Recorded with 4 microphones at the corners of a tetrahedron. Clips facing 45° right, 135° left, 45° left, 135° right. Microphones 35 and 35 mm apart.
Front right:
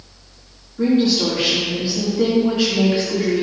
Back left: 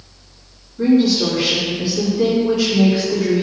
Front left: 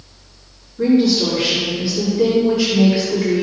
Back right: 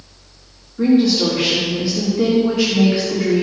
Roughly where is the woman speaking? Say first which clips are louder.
Back left 2 dB, even; right.